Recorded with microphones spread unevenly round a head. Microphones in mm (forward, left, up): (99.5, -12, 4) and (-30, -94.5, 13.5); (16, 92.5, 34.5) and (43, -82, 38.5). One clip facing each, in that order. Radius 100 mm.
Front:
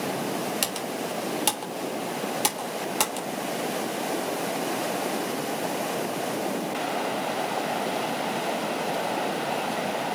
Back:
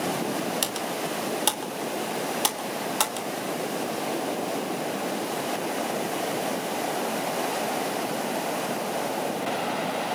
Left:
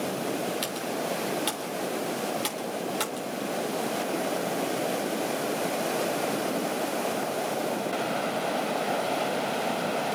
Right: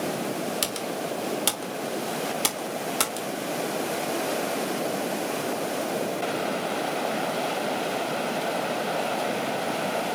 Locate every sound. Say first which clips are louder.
0.6 s typing on a keyboard: back 1 dB, even; 50° right, 3.5 m